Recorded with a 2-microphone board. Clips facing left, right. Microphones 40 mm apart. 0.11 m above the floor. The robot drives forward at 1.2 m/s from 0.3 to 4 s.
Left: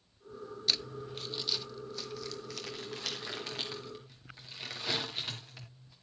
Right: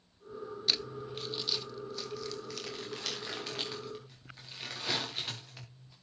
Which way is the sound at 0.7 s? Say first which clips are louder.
Even; 5° right (ahead or behind).